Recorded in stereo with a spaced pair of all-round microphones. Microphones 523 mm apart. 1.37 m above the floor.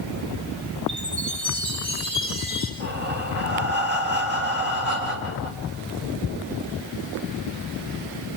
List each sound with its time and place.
0.9 s a chime: 45° right (ahead or behind), 9 m
2.8 s breathing: 20° right (ahead or behind), 5 m